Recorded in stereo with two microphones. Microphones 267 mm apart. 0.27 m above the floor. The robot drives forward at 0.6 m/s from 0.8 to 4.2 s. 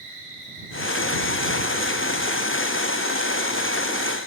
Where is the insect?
5° left (ahead or behind), 7 m.